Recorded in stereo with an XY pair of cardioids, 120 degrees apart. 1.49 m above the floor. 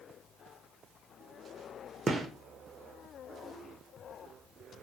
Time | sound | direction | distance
2.1 | a gunshot | 30° right | 0.5 m